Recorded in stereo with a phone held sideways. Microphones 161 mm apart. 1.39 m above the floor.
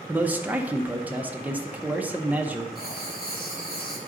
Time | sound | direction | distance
0.1 | a man speaking | 10° right (ahead or behind) | 0.7 m
2.8 | writing | 70° left (ahead or behind) | 1.6 m